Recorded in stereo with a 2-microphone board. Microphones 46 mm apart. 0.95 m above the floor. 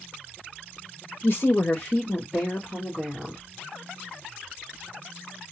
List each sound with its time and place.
1.2 s a woman speaking: 50° left (ahead or behind), 0.7 m; by 3.4 s 15° right (ahead or behind), 1.5 m